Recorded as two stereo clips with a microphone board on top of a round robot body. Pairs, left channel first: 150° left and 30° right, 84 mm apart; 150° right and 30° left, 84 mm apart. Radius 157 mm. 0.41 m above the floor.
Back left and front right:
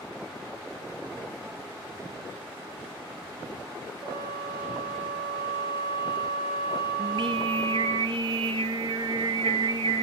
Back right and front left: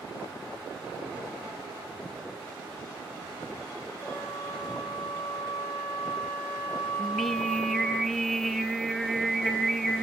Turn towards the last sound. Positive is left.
turn(degrees=-60)